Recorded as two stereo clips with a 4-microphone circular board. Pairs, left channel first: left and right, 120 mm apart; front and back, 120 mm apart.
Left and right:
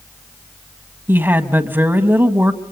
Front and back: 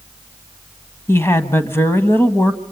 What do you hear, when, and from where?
1.1 s a woman speaking: 40° right, 1.7 m